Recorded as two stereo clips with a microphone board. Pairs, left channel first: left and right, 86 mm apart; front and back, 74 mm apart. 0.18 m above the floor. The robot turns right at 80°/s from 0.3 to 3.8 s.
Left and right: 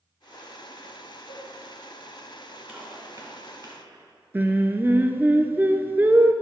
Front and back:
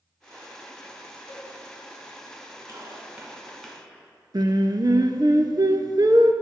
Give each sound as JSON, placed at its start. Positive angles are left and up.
{"t": 1.3, "sound": "a cowbell", "azimuth_deg": -45, "distance_m": 1.5}
{"t": 2.7, "sound": "a gunshot", "azimuth_deg": -170, "distance_m": 1.8}
{"t": 4.3, "sound": "singing", "azimuth_deg": -155, "distance_m": 0.5}